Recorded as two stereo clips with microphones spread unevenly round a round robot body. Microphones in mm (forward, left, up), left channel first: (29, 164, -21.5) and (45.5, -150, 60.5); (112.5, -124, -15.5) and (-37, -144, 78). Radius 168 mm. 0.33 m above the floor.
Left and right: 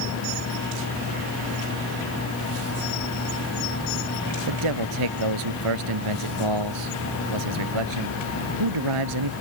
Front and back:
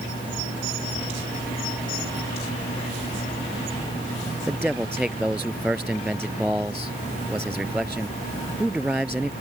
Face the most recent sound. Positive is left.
turn(degrees=-90)